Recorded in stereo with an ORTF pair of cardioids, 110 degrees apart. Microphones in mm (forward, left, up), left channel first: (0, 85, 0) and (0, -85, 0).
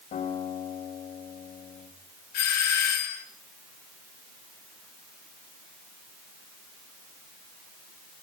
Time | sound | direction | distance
0.1 | a guitar | 60° left | 6.5 m
2.3 | a doorbell | 70° left | 3.5 m